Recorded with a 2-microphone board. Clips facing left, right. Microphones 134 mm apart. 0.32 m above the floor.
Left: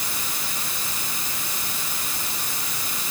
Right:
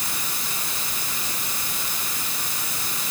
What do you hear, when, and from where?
Only background noise.